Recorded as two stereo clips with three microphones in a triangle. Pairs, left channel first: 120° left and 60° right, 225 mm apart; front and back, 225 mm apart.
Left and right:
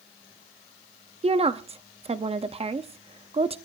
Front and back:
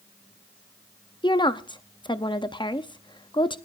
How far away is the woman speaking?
About 0.6 m.